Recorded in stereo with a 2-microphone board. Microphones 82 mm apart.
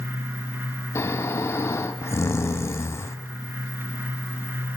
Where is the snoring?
35° left (ahead or behind), 1.1 m.